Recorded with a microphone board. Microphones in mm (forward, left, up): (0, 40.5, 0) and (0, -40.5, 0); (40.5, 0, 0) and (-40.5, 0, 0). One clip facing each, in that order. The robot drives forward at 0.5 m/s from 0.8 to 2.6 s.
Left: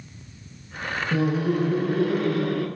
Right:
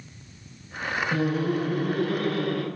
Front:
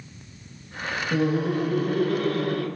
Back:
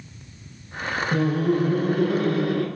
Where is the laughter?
50° left, 1.3 m; by 2.6 s 135° left, 1.3 m.